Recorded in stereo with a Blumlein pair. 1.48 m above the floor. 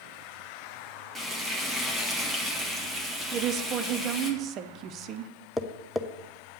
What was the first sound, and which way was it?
Frying, 5° right.